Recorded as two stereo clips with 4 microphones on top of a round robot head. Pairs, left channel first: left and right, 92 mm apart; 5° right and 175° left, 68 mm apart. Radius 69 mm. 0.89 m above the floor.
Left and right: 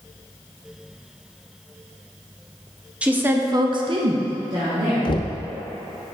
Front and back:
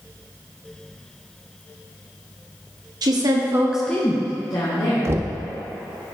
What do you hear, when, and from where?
3.0 s a woman speaking: 165° right, 1.3 m; by 5.2 s 30° right, 2.5 m
5.0 s knocking: 130° left, 0.7 m